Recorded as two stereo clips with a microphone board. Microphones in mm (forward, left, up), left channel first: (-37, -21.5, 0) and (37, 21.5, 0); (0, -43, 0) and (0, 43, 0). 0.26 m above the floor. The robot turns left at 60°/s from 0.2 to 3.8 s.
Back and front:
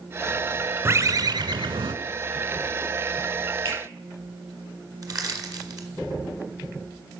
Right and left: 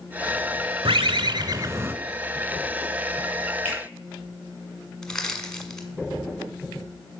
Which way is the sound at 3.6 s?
25° left.